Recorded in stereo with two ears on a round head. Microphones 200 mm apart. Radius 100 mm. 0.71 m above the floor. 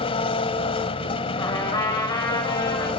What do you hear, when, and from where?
0.0 s an engine running: 25° left (ahead or behind), 1.4 m
1.4 s a trumpet: 15° left (ahead or behind), 4.5 m